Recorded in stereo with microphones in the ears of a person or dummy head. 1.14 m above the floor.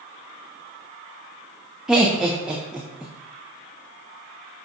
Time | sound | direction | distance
1.9 | laughter | 5° right (ahead or behind) | 0.5 m